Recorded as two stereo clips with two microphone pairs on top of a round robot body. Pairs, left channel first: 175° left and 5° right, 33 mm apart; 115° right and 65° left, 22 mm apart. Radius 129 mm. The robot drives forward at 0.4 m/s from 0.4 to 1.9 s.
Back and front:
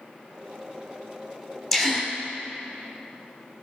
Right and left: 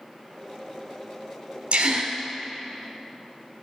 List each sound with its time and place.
1.7 s a gasp: 95° left, 1.3 m; by 2.1 s 100° left, 1.3 m